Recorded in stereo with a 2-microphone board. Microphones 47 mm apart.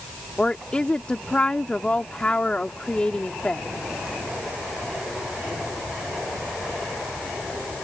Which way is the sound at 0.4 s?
25° left (ahead or behind).